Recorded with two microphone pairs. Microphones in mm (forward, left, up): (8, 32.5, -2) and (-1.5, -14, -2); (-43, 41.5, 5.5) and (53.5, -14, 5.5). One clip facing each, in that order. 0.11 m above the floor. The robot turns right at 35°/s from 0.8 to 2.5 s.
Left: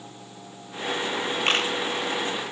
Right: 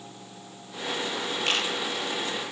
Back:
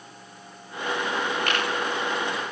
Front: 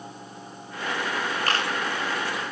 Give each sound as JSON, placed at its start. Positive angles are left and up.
{"t": 1.5, "sound": "a camera shutter", "azimuth_deg": 25, "distance_m": 5.0}